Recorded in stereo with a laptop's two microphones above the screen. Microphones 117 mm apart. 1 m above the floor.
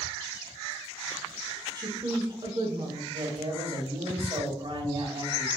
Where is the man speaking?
55° right (ahead or behind), 1.3 m.